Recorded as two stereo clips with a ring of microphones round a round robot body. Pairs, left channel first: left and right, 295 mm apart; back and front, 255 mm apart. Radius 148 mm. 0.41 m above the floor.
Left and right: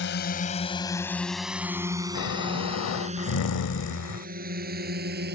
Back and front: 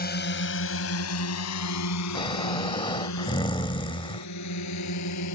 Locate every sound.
0.0 s a drone: 135° left; by 5.3 s 145° right
2.1 s snoring: 110° left